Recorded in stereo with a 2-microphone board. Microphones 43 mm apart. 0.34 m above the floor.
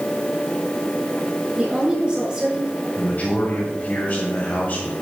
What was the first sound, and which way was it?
A woman speaking, 30° right (ahead or behind).